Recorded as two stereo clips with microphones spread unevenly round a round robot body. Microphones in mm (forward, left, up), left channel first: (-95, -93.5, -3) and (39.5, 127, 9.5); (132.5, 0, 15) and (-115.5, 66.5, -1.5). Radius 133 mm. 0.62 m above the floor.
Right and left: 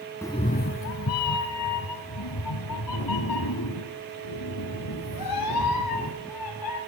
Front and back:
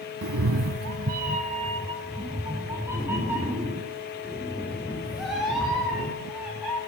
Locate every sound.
0.2 s a cat meowing: 160° left, 0.7 m; by 6.8 s 105° right, 5 m